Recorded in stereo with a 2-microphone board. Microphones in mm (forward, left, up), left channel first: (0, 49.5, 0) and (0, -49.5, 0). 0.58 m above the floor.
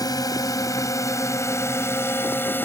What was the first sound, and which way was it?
A drone, 40° left (ahead or behind).